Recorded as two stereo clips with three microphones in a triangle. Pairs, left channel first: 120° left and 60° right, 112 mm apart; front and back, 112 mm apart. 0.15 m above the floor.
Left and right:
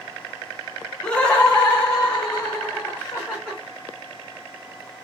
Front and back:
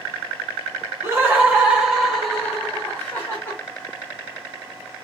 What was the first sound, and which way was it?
Laughter, 175° right.